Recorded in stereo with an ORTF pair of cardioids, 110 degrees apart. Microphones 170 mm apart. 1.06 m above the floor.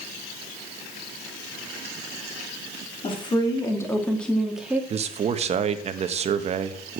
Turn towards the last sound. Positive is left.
turn(degrees=-40)